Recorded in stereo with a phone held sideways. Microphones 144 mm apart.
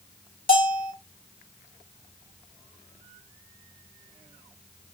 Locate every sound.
0.5 s a bell: 80° left, 2.5 m